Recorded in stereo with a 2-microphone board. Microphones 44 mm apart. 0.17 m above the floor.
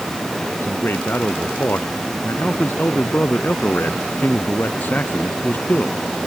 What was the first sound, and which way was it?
A man speaking, 55° left (ahead or behind).